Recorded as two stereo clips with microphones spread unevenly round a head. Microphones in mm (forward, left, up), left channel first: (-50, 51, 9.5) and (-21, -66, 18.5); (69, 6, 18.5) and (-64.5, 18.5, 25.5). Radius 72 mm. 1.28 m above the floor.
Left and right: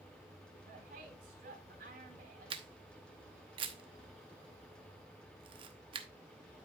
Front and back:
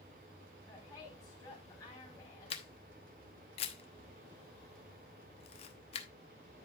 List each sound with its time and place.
0.7 s a woman speaking: 75° right, 4.5 m
2.5 s a camera shutter: 45° right, 0.9 m